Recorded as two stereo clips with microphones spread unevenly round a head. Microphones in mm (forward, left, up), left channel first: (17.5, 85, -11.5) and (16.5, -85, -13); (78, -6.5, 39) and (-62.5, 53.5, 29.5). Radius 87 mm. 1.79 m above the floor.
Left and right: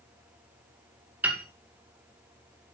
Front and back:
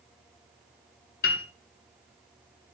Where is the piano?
10° right, 2 m.